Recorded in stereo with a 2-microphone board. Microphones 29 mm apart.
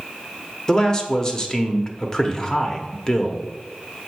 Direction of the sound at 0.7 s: 20° left (ahead or behind).